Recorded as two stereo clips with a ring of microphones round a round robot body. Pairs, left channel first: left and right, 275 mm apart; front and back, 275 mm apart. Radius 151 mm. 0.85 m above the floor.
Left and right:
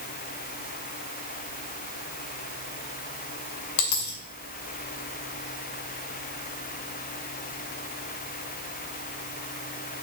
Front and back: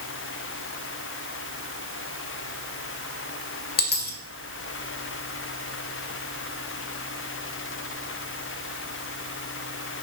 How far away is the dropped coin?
About 1.8 m.